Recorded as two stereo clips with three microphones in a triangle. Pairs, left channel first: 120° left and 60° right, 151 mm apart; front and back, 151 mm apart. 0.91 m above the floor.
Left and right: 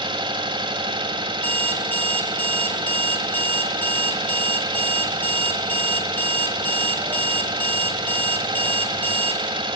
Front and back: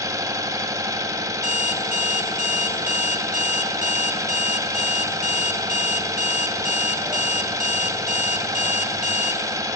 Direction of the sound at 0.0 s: 115° right.